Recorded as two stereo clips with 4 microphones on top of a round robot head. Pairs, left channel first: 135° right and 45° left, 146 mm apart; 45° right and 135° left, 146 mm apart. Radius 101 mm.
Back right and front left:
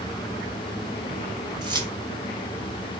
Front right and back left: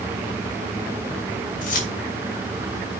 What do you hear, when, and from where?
1.6 s keys jangling: 15° right, 2 m